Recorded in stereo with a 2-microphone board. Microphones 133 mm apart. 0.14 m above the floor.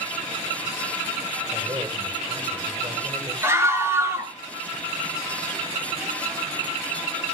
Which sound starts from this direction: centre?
A scream, at 3.4 s.